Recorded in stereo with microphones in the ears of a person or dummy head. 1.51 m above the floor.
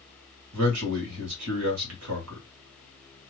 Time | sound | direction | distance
0.5 | a man speaking | 75° right (ahead or behind) | 1.4 m